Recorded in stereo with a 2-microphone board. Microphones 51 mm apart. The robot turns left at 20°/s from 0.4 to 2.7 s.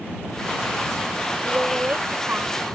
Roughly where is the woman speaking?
Right.